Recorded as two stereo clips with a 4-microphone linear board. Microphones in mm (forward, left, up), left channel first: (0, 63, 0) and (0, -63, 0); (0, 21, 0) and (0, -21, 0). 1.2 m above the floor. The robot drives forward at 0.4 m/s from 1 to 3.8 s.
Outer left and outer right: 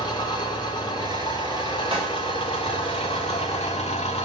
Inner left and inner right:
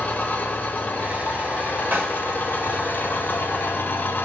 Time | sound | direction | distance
0.0 | an engine running | 40° left (ahead or behind) | 3 m
1.9 | a snare drum | 45° right (ahead or behind) | 6 m